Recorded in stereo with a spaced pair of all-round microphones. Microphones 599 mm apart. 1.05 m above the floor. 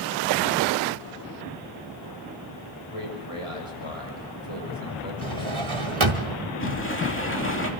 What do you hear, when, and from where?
2.9 s a man speaking: 65° left (ahead or behind), 6.5 m
5.2 s a drawer: 60° right (ahead or behind), 1.6 m
6.6 s a sliding door: 20° left (ahead or behind), 2.5 m